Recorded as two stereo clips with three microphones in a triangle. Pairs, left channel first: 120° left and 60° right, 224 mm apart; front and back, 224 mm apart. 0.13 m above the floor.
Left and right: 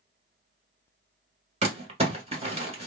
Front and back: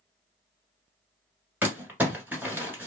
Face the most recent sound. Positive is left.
turn(degrees=-105)